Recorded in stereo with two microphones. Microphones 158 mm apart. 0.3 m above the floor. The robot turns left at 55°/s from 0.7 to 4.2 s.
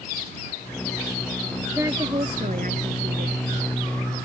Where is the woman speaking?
15° right; by 3.4 s 105° right.